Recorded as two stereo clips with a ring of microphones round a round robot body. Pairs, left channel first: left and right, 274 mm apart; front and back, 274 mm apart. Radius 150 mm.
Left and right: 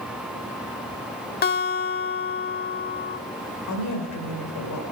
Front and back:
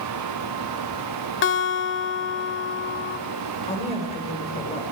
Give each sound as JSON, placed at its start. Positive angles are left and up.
{"t": 1.4, "sound": "a guitar", "azimuth_deg": 40, "distance_m": 1.1}
{"t": 3.7, "sound": "a woman speaking", "azimuth_deg": 70, "distance_m": 4.0}